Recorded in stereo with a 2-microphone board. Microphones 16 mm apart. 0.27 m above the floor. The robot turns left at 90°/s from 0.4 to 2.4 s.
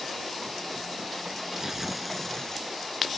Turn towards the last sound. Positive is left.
turn(degrees=140)